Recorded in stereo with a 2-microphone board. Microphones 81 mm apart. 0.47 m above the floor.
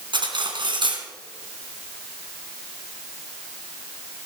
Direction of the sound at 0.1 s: 75° right (ahead or behind).